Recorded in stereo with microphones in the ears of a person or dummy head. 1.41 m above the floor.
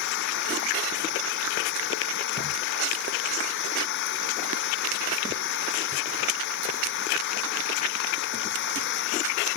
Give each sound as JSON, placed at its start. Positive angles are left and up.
{"t": 0.0, "sound": "an engine running", "side_deg": 70}